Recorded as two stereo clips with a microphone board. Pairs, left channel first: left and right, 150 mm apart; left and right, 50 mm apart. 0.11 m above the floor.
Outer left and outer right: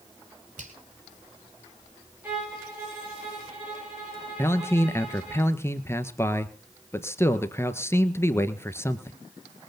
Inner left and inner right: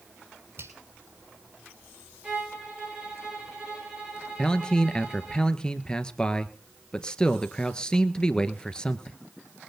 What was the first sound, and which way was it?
A finger snap, 60° right (ahead or behind).